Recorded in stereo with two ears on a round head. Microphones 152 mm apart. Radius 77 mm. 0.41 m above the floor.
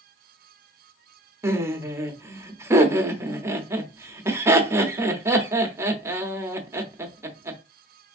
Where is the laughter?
15° right (ahead or behind), 0.8 m.